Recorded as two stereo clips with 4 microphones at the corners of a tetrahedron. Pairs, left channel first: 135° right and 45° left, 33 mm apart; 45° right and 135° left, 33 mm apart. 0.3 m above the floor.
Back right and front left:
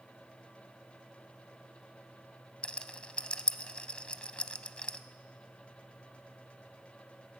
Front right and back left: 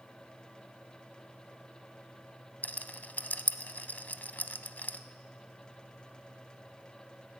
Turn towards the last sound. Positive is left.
turn(degrees=-75)